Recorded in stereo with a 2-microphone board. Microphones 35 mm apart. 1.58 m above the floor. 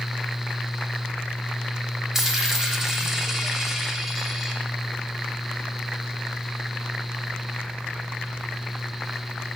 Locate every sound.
2.1 s a dropped coin: 10° right (ahead or behind), 1.1 m